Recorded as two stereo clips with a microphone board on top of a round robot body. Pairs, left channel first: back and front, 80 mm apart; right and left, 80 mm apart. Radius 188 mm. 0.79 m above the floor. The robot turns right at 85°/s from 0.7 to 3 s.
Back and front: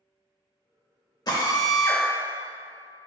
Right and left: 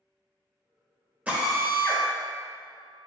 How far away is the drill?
About 1.3 m.